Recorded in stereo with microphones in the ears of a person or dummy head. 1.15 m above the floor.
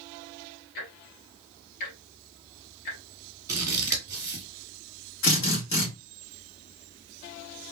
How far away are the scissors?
About 1.6 m.